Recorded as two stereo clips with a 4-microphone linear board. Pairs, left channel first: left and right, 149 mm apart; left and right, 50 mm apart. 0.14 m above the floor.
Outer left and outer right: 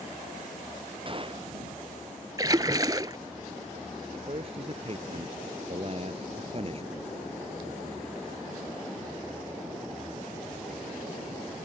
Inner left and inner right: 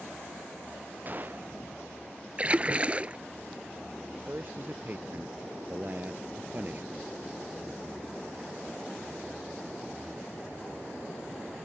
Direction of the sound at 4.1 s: 45° right (ahead or behind).